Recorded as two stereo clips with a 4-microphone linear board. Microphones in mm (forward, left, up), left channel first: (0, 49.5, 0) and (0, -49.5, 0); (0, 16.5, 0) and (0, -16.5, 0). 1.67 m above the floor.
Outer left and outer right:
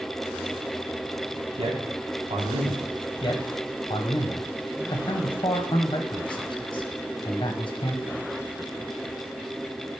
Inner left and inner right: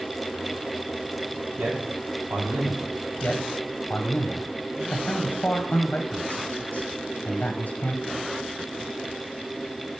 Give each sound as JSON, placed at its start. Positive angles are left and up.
{"t": 1.6, "sound": "a man speaking", "side_deg": -65, "distance_m": 1.7}
{"t": 3.2, "sound": "a man speaking", "side_deg": 50, "distance_m": 0.9}